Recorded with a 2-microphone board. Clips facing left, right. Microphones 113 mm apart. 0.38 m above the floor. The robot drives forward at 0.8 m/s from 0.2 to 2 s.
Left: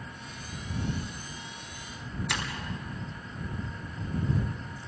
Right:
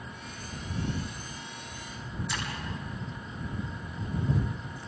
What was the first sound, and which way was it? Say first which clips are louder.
Breaking glass: left 2 dB; 70° left (ahead or behind).